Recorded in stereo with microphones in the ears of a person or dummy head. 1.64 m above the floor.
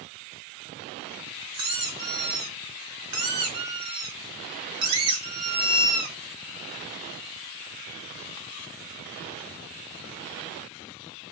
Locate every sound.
1.5 s a squeak: 20° right (ahead or behind), 1.1 m